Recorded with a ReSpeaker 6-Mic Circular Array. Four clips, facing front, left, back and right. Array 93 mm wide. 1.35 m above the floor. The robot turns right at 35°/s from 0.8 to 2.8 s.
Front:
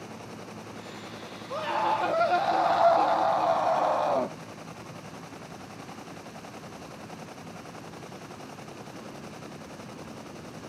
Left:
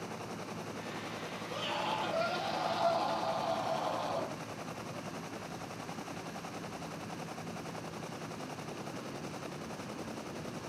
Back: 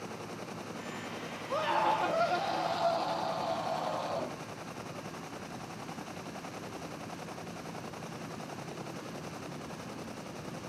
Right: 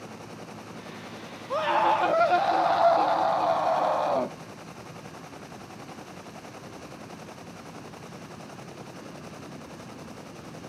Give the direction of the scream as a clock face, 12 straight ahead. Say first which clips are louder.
Right 14 dB, front 2 dB; 3 o'clock.